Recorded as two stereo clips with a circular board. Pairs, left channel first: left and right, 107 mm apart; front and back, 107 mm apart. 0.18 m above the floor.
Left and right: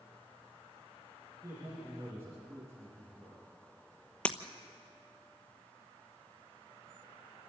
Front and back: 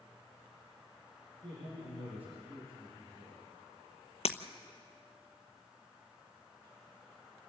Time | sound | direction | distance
1.4 | a man speaking | 155° right | 6.5 m
4.2 | breaking glass | 10° left | 1.0 m